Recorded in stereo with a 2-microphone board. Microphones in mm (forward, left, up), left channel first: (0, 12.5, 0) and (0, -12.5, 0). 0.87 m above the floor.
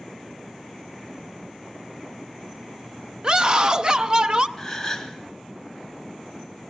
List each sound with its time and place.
3.2 s a scream: 30° right (ahead or behind), 0.5 m
4.6 s a gasp: 10° left (ahead or behind), 1.6 m